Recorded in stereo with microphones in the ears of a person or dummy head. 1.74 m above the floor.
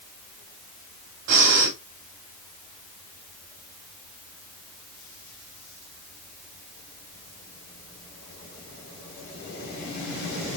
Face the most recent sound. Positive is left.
turn(degrees=-60)  # may be behind; listen again after turning